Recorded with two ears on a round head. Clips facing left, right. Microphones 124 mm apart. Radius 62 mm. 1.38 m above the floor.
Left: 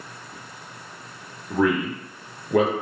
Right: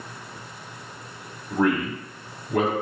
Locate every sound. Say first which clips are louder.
1.5 s a man speaking: left 1 dB; 65° left (ahead or behind), 1.0 m